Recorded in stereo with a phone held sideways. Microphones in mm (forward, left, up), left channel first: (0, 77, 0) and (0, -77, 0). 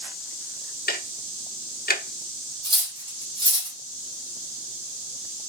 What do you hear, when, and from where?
0.9 s ticking: 80° left, 0.6 m
2.6 s cutlery clinking: 30° right (ahead or behind), 1.4 m